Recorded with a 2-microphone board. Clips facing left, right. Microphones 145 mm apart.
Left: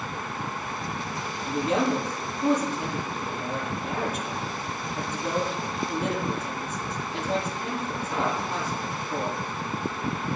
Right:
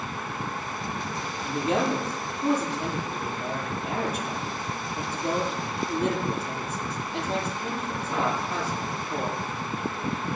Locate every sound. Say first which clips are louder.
1.4 s a man speaking: left 1 dB; 10° left (ahead or behind), 7.5 m